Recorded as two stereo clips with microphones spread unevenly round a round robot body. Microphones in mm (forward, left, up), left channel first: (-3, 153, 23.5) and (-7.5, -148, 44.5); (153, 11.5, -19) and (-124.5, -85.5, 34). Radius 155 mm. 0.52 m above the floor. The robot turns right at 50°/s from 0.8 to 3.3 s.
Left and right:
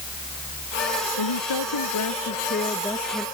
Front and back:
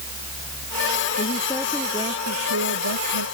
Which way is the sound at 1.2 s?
85° left.